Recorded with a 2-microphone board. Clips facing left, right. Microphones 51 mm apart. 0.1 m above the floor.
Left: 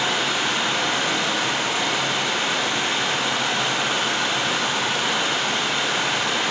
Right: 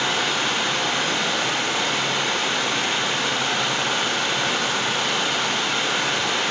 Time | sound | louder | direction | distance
0.0 | running water | even | 5° left (ahead or behind) | 3 m